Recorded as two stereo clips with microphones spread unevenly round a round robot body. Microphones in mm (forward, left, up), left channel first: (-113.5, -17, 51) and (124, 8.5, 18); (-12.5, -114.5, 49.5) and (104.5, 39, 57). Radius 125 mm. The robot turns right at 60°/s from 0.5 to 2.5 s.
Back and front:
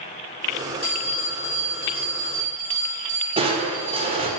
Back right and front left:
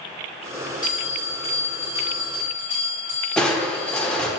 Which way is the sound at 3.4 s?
45° right.